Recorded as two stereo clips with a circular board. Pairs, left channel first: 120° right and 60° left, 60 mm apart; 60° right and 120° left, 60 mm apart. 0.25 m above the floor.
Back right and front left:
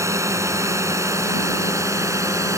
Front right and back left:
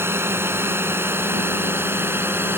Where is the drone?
80° left; by 2.6 s 75° left.